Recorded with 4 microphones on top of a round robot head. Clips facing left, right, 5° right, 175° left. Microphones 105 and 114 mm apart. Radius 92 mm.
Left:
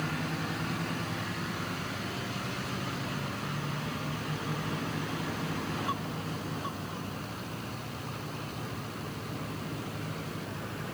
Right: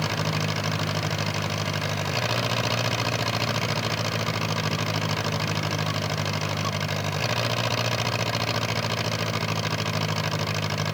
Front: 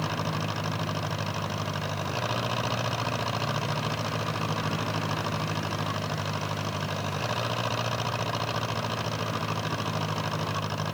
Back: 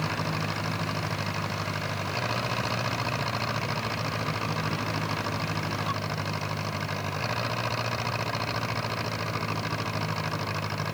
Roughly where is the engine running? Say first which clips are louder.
Right 6 dB, even; right.